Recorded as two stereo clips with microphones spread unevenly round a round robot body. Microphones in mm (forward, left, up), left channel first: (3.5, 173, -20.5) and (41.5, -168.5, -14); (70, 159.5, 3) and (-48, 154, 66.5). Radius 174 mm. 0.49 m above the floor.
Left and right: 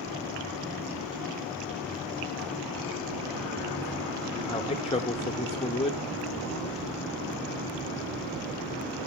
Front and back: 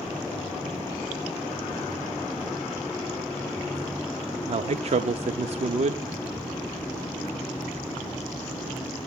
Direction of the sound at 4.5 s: 145° left.